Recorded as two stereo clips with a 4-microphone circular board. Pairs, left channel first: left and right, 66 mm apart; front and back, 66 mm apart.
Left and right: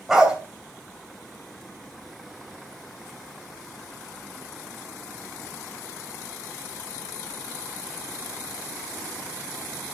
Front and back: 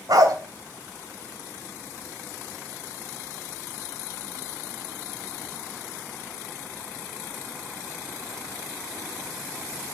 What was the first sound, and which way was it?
A dog barking, 170° right.